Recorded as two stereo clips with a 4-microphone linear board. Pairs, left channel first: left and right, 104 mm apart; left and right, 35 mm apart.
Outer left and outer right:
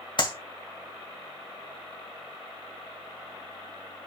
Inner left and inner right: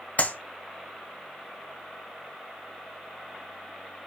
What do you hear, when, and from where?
0.2 s a clap: 50° left (ahead or behind), 1.9 m